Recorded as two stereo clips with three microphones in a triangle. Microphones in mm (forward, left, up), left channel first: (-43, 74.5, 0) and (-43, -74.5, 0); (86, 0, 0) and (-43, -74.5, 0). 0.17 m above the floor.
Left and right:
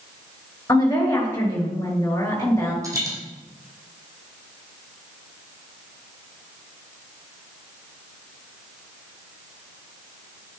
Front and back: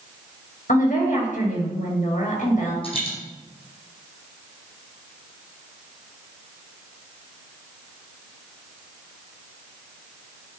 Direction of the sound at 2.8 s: 20° right.